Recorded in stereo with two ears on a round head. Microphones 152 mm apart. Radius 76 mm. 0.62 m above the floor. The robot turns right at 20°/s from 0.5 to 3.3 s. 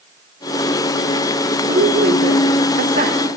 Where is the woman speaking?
80° right, 1.9 m; by 3.3 s 45° right, 1.9 m.